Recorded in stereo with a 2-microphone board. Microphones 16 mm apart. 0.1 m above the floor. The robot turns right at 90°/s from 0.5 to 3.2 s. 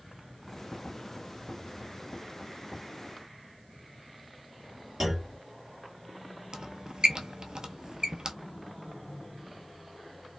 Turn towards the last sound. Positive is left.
turn(degrees=-45)  # may be behind; listen again after turning